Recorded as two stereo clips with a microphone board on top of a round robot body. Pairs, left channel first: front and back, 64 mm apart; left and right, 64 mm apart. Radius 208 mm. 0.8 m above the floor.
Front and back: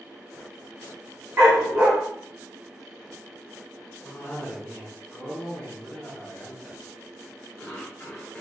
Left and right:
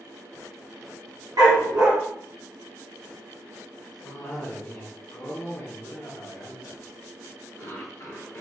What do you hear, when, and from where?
1.4 s a dog barking: 120° right, 1.2 m
4.0 s a cough: 65° left, 1.2 m